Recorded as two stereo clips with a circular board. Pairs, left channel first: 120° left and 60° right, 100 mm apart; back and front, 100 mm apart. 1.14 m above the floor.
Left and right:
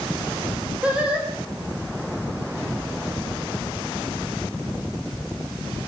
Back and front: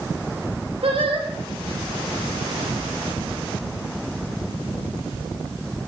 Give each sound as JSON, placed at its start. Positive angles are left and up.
{"t": 0.8, "sound": "singing", "azimuth_deg": 20, "distance_m": 4.5}